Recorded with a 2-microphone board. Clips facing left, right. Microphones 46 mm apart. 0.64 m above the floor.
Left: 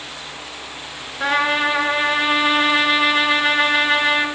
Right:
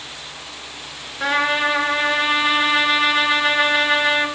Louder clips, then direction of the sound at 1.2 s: Left 1 dB; 10° left (ahead or behind).